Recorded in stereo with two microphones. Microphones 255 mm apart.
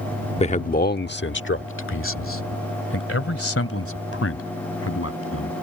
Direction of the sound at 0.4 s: 25° left (ahead or behind).